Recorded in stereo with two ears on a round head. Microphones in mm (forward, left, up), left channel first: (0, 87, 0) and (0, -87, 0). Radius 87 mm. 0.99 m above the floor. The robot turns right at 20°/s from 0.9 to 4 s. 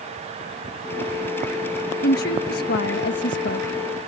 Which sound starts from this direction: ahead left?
A woman speaking, at 2.0 s.